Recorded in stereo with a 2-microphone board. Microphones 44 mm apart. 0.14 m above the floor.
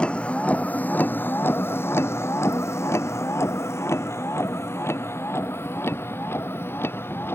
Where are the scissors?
No scissors in this recording.